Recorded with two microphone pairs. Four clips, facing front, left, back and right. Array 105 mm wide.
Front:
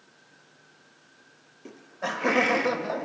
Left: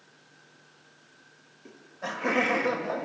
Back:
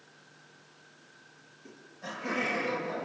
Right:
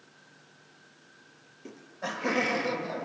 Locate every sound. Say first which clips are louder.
1.6 s laughter: even, front 10 dB; 25° right, 1.5 m; by 3.1 s 35° left, 2.5 m